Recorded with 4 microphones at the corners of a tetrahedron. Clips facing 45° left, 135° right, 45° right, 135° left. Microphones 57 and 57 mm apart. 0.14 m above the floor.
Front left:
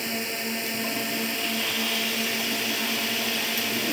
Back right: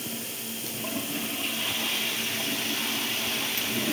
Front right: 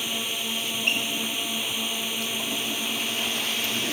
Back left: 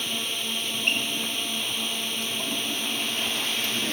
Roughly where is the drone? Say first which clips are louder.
Front left 7 dB, even; ahead left.